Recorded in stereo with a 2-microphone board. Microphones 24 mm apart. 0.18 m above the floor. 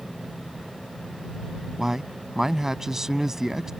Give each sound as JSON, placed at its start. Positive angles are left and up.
{"t": 1.8, "sound": "a man speaking", "side_deg": -20}